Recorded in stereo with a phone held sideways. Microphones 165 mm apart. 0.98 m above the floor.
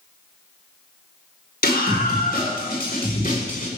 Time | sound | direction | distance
1.6 | a scream | 70° left (ahead or behind) | 4 m